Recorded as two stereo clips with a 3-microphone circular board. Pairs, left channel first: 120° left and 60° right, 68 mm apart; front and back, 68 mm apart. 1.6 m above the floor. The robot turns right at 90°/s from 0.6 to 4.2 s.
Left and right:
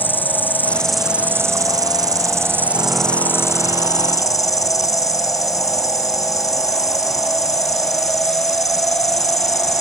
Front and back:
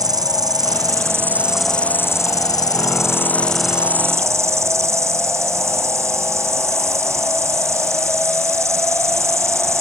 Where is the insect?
Straight behind; by 9.8 s 145° left.